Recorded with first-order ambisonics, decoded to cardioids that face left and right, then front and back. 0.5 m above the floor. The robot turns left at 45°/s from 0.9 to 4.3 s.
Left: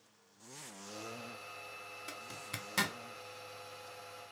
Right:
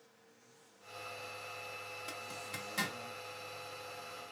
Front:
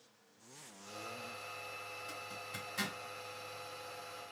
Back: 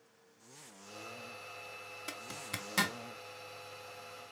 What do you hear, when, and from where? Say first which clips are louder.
2.1 s a zipper: left 1 dB, back 2 dB; 175° left, 0.7 m; by 3.0 s 135° left, 0.7 m